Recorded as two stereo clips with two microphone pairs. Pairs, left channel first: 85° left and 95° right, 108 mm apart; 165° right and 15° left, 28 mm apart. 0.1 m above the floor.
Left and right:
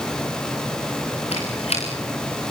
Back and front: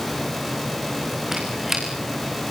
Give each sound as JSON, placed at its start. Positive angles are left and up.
{"t": 1.3, "sound": "a squeak", "azimuth_deg": 90, "distance_m": 7.0}